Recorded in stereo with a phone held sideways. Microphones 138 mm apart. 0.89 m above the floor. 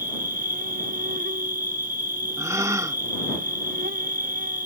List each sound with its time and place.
0.0 s an insect: 80° right
2.4 s a gasp: 25° right (ahead or behind)